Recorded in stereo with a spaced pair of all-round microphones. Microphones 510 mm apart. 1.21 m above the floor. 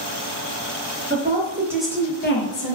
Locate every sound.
1.1 s a woman speaking: 20° right (ahead or behind), 1.0 m; by 2.8 s 50° left (ahead or behind), 0.6 m